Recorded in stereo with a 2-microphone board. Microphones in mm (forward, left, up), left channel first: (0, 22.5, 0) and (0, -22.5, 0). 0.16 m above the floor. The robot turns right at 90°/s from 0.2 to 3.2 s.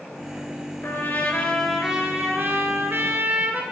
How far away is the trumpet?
About 2 m.